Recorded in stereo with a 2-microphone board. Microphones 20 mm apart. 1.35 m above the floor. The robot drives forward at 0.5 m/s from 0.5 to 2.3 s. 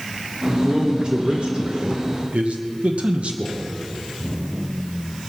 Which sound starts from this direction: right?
A man speaking, at 0.5 s.